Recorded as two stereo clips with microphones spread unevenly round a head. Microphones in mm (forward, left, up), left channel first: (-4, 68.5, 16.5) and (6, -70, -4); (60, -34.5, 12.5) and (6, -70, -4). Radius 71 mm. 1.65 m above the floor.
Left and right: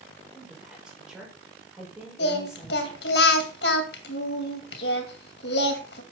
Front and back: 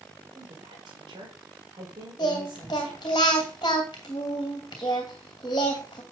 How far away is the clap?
No clap in this recording.